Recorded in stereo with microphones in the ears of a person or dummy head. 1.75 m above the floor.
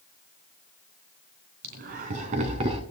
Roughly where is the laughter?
Right.